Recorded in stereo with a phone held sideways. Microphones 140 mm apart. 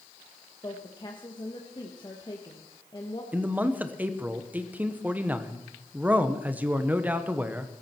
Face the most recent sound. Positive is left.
turn(degrees=-10)  # may be behind; listen again after turning